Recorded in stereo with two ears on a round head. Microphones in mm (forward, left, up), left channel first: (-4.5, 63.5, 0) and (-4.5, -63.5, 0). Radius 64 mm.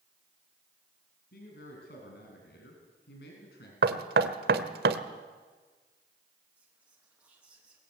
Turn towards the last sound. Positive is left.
turn(degrees=-10)  # may be behind; listen again after turning